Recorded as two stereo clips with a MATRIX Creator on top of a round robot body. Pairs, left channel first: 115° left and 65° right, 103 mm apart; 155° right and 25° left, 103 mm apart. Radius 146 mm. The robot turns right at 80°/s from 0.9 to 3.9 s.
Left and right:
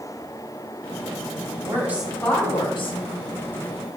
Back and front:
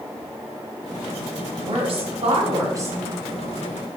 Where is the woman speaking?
15° right, 2.5 m; by 3.0 s 95° left, 2.5 m.